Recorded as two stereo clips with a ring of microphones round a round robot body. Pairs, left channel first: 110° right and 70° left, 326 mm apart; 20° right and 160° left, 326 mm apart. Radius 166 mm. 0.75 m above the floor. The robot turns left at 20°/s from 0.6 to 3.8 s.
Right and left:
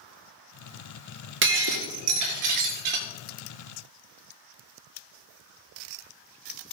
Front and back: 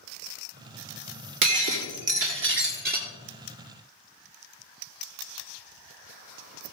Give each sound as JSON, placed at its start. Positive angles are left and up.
{"t": 1.4, "sound": "breaking glass", "azimuth_deg": 125, "distance_m": 1.9}